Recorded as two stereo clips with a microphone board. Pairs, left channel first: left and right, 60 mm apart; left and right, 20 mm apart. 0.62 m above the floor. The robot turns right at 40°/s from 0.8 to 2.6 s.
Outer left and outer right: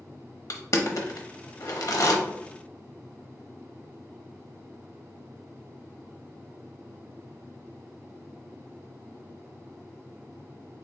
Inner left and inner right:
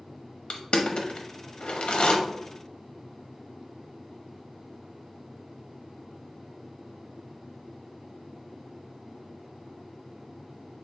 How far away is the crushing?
About 0.8 m.